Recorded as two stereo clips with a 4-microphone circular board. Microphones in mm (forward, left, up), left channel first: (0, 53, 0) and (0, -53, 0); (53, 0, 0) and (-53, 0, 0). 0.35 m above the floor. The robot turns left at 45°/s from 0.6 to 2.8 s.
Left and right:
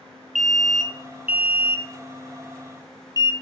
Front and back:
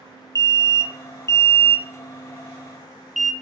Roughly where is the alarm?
Ahead.